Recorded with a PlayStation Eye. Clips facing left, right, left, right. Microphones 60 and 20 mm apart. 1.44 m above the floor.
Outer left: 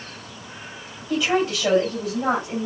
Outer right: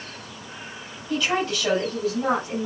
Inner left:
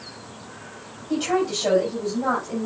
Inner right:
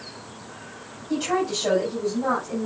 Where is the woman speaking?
10° left (ahead or behind), 8 m; by 2.7 s 15° left (ahead or behind), 8.5 m.